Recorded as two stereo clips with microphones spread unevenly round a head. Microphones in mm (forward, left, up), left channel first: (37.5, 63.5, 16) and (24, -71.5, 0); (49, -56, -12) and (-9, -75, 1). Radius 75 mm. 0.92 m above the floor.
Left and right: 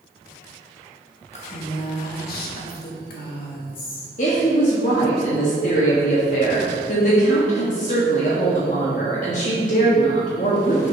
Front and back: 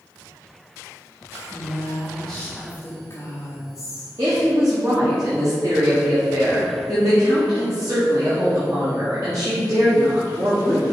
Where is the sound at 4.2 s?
130° left, 1.6 m.